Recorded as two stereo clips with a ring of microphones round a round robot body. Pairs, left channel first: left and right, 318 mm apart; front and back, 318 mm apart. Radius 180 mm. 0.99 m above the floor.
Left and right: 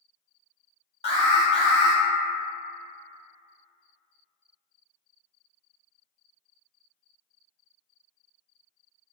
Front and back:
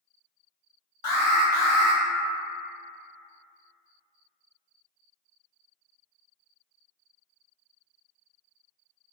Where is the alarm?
15° left, 1.1 m.